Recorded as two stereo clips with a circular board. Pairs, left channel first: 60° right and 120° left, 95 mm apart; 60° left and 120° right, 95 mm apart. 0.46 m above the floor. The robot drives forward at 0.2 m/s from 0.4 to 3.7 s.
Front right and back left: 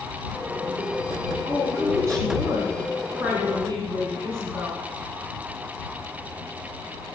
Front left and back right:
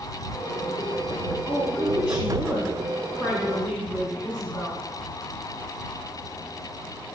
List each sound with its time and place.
1.4 s a woman speaking: 165° left, 4 m; by 4.8 s 170° left, 4.5 m